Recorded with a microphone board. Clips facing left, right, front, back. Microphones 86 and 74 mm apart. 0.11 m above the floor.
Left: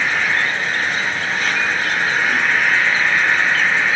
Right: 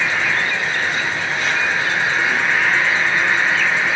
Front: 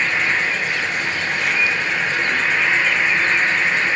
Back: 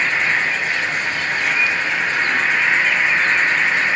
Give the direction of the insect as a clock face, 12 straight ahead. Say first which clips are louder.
Left 1 dB, back 1 dB; 8 o'clock.